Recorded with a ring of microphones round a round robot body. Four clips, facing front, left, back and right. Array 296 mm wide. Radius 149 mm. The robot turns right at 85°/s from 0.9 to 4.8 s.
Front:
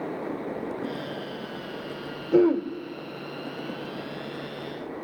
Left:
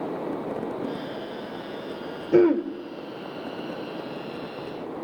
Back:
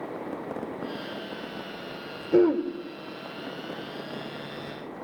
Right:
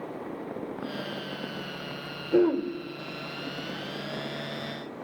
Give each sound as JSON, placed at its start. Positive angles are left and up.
{"t": 2.3, "sound": "throat clearing", "azimuth_deg": 80, "distance_m": 1.2}